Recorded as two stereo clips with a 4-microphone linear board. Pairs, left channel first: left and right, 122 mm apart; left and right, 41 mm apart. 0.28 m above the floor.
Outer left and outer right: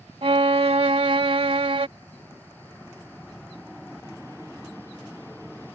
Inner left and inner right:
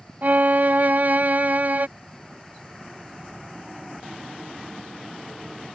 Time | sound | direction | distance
0.2 | a violin | 50° right (ahead or behind) | ?